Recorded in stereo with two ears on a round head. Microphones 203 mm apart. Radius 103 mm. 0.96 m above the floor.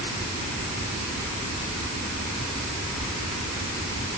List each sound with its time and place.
Only background noise.